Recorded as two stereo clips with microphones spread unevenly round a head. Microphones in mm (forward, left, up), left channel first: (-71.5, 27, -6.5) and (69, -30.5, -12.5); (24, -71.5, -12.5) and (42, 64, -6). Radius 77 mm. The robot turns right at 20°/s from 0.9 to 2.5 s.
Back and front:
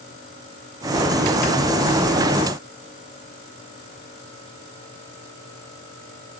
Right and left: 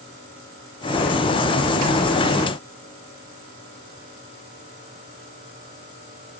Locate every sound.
Only background noise.